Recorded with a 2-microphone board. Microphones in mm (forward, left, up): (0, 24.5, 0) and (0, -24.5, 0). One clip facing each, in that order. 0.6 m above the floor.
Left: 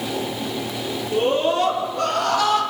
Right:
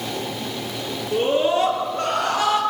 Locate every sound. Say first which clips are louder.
1.1 s a scream: even; 20° right (ahead or behind), 10 m; by 2.6 s 35° right (ahead or behind), 10 m